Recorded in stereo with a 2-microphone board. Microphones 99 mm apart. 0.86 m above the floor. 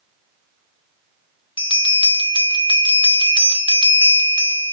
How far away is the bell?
About 0.9 m.